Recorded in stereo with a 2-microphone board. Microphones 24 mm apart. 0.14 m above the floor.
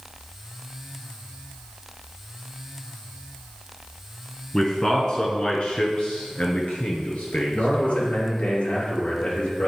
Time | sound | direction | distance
4.5 | a man speaking | 20° left (ahead or behind) | 1.5 m
7.5 | a man speaking | 55° left (ahead or behind) | 3 m